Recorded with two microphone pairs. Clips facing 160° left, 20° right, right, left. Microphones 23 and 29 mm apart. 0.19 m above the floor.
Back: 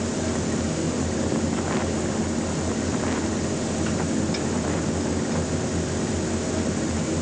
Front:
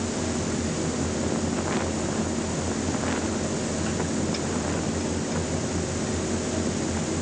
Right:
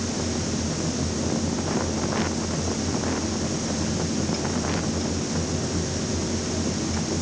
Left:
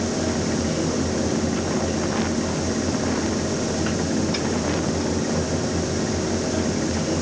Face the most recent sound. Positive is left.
No sound to turn to.